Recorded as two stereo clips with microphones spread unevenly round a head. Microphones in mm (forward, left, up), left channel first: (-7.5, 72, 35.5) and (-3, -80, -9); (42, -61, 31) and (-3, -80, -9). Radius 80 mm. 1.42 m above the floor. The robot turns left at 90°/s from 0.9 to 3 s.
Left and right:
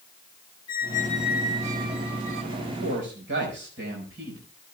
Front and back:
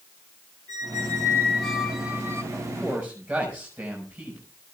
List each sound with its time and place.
0.7 s a squeak: 35° left, 1.6 m; by 2.4 s 100° right, 1.6 m
2.5 s a man speaking: 60° right, 5.5 m; by 4.4 s 105° right, 5.5 m